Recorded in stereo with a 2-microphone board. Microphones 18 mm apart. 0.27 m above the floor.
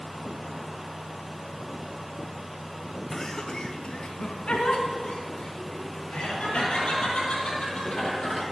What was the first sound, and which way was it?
Laughter, 10° left (ahead or behind).